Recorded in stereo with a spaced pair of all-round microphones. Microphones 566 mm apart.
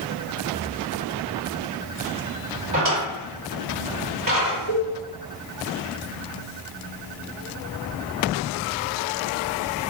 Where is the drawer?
35° right (ahead or behind), 1.3 m.